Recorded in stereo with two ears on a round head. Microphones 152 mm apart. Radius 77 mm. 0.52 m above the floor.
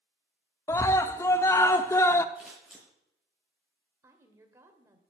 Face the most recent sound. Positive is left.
turn(degrees=-15)  # may be behind; listen again after turning